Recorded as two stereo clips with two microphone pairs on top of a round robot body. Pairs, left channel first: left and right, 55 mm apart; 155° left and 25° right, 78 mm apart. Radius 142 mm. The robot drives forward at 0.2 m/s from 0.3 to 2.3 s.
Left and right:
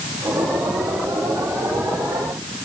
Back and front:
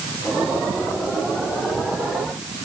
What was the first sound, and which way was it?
Only background noise.